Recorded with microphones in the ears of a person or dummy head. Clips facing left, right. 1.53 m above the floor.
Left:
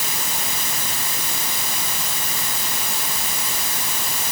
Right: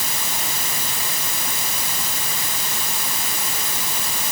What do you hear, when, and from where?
Only background noise.